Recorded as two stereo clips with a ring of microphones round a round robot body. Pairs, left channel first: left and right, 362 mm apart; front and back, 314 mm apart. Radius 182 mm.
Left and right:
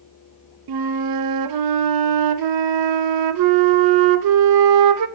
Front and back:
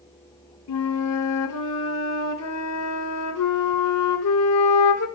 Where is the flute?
50° right, 0.6 m.